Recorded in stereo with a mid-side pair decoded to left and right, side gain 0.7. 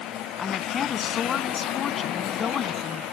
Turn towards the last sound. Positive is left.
turn(degrees=35)